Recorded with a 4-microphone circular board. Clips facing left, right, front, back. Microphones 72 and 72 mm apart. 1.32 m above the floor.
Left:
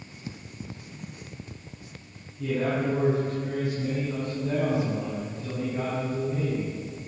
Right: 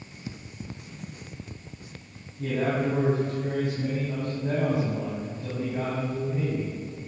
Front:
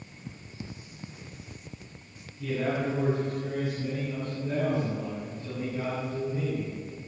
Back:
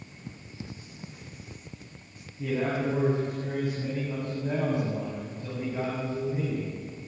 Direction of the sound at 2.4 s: 135° right.